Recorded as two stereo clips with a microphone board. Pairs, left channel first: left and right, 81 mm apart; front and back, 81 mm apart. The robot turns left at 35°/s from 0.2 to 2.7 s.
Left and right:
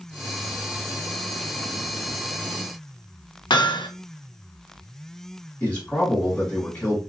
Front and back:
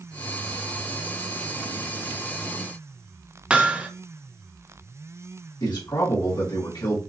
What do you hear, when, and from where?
3.5 s hammering: 105° left, 0.6 m
5.6 s a man speaking: 20° left, 2.5 m